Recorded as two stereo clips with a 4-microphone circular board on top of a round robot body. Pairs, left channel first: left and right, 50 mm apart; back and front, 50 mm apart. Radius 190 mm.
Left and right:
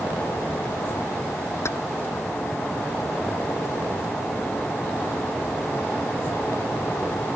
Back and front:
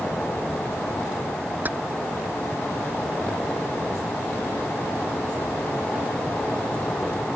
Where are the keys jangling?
55° left.